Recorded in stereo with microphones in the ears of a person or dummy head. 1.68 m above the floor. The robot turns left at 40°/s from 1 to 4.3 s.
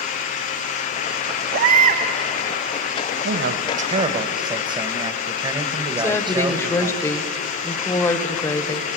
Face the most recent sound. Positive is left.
turn(degrees=15)  # may be behind; listen again after turning